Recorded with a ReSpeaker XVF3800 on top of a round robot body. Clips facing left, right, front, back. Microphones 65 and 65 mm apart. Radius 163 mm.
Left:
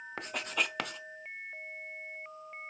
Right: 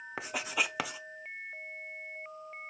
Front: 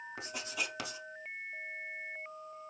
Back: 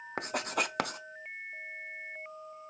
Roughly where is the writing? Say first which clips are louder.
Right 1 dB, back 9 dB; behind.